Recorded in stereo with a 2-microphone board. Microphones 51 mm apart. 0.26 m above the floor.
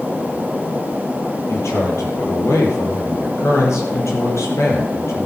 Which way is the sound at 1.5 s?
70° left (ahead or behind).